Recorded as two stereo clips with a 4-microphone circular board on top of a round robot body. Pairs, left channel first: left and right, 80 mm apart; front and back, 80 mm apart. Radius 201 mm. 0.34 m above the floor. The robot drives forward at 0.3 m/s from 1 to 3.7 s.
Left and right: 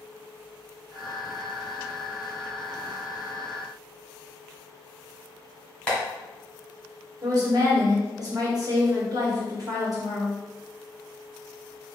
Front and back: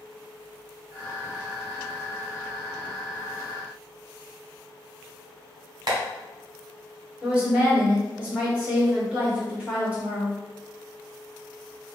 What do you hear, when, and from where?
5.9 s tapping: 170° left, 1.7 m
7.2 s a woman speaking: 110° right, 1.9 m